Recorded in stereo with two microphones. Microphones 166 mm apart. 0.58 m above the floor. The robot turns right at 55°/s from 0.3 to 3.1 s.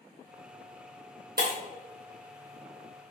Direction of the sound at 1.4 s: 75° right (ahead or behind).